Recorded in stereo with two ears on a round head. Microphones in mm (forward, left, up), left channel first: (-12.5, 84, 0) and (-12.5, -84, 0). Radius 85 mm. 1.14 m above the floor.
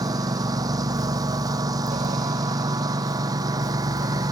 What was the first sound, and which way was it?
A lawn mower, 20° right (ahead or behind).